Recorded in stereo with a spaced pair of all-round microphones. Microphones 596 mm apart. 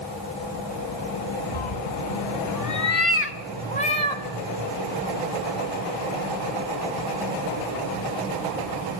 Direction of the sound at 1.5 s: 55° left (ahead or behind).